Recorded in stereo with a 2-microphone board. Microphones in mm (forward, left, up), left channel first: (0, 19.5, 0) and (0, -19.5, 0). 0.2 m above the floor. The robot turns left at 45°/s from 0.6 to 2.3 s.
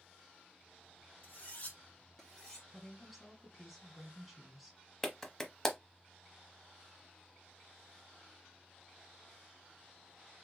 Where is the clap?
10° left (ahead or behind), 0.7 m.